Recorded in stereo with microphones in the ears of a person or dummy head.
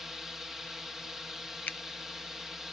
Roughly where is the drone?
Centre.